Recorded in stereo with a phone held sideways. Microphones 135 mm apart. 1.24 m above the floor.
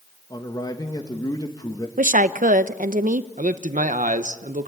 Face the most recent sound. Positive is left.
turn(degrees=-70)  # may be behind; listen again after turning